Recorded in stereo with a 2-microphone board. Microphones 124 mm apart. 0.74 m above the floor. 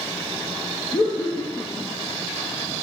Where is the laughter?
30° left (ahead or behind), 0.6 m.